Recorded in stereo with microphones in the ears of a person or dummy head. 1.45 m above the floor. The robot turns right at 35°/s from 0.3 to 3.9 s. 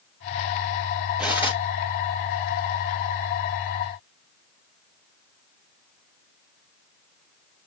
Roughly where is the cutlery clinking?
Centre.